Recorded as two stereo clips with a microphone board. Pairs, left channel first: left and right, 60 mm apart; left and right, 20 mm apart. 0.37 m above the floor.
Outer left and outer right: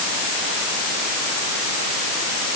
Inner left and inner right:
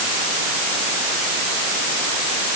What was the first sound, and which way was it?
Only background noise.